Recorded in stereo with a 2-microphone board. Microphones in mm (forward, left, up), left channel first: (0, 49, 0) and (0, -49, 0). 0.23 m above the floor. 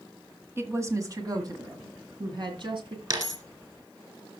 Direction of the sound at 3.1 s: 45° right (ahead or behind).